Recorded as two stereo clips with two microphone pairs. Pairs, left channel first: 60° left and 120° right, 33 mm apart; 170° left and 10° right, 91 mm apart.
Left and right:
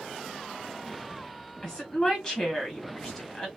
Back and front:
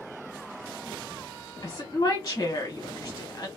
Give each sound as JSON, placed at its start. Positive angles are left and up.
{"t": 1.6, "sound": "a woman speaking", "azimuth_deg": 125, "distance_m": 1.5}